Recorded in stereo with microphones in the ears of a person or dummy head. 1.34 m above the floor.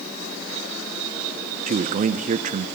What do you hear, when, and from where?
1.7 s a man speaking: 45° right (ahead or behind), 0.7 m